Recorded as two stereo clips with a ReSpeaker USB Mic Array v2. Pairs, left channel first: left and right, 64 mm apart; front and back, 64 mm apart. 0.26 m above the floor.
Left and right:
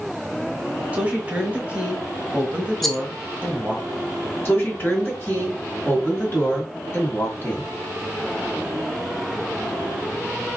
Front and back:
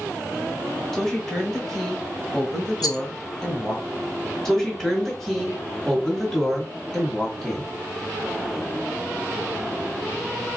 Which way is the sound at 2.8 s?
5° left.